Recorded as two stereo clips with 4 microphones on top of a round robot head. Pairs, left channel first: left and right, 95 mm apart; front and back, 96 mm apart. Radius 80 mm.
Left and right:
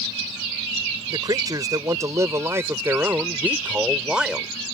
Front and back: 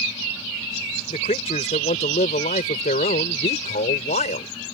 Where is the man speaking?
40° right; by 4.5 s 5° right.